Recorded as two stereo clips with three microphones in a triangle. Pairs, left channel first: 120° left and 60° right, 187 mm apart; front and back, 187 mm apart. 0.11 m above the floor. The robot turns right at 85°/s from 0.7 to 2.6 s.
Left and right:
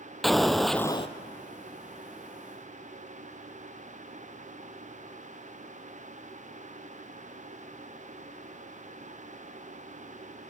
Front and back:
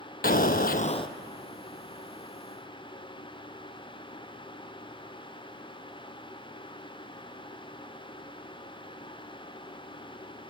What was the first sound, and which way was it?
An explosion, 30° left.